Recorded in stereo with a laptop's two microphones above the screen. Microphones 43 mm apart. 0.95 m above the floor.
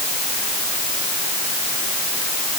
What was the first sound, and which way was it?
Only background noise.